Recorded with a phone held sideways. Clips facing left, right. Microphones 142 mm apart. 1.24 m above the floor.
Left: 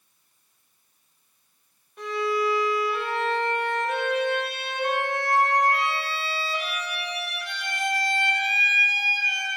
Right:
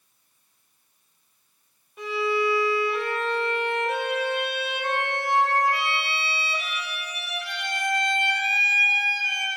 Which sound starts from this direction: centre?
A violin, at 2.0 s.